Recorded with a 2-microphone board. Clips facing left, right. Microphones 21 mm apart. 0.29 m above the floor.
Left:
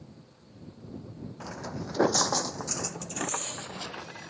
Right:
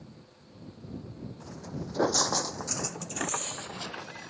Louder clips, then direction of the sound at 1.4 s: Left 4 dB; 75° left (ahead or behind).